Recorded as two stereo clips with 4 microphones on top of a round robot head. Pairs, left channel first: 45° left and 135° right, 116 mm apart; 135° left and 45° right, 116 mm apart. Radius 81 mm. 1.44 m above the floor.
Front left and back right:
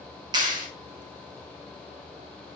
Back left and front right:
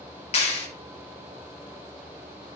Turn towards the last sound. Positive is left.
turn(degrees=170)